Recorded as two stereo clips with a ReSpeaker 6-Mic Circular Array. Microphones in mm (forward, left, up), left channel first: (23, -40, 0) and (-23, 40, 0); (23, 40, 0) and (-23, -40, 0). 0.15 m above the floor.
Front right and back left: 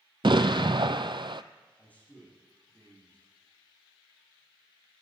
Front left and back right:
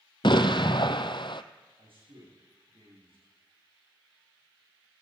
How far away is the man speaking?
About 9.5 m.